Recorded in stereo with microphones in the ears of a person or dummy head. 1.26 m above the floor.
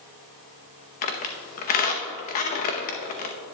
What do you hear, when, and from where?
1.0 s a squeak: 45° left (ahead or behind), 0.7 m